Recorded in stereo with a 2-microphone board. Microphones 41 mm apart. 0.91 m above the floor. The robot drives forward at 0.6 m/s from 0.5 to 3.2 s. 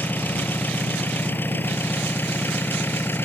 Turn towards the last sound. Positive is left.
turn(degrees=65)  # may be behind; listen again after turning